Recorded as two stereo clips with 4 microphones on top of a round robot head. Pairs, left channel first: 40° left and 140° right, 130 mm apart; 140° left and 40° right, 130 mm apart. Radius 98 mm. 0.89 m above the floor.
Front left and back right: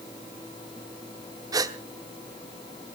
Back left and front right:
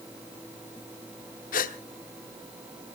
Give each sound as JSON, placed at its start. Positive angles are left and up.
{"t": 1.5, "sound": "a gasp", "azimuth_deg": 155, "distance_m": 1.2}